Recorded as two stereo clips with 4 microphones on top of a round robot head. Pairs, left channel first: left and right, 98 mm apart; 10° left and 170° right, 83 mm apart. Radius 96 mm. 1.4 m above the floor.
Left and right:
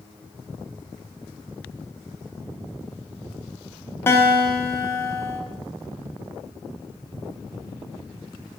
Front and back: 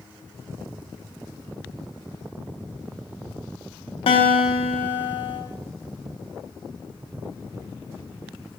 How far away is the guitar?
About 1.0 m.